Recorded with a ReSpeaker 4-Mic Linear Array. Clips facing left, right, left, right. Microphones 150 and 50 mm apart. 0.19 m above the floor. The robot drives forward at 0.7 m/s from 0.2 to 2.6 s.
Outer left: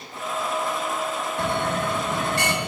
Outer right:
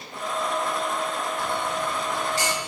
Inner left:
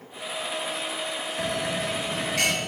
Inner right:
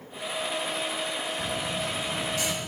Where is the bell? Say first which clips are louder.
Outer left 6 dB, inner left 3 dB; 65° left (ahead or behind); by 2.7 s 60° left (ahead or behind).